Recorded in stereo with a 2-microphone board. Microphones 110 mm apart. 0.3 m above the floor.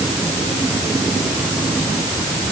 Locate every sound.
Only background noise.